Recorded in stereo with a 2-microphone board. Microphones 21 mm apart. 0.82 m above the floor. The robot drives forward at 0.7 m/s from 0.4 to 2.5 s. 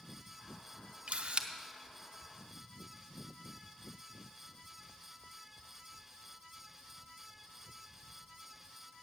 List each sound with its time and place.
1.1 s a camera shutter: 70° right (ahead or behind), 0.7 m; by 1.5 s 50° right (ahead or behind), 0.8 m